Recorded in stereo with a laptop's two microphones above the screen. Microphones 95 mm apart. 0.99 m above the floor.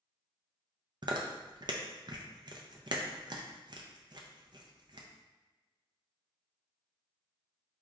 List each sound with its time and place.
1.0 s chewing: 50° right (ahead or behind), 0.5 m